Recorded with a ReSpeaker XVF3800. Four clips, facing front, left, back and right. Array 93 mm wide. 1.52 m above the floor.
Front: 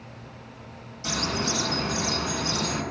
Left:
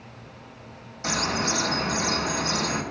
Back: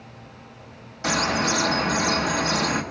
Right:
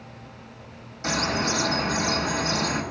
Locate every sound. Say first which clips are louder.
1.0 s a bird: right 1 dB, back 6 dB; 175° left, 0.9 m